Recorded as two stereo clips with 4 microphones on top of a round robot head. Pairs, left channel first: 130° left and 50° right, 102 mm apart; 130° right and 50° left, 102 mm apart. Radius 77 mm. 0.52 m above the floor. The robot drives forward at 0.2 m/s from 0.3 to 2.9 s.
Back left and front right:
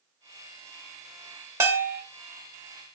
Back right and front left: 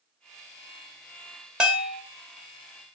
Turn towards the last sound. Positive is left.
turn(degrees=-65)